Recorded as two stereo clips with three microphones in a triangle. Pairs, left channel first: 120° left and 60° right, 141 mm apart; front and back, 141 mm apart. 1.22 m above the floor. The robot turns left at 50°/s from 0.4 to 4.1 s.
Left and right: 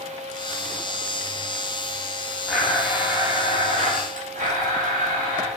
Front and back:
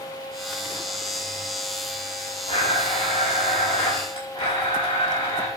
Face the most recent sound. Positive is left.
turn(degrees=-45)